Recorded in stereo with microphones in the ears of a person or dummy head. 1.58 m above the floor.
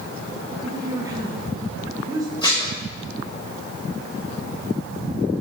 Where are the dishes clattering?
25° left (ahead or behind), 4.5 m.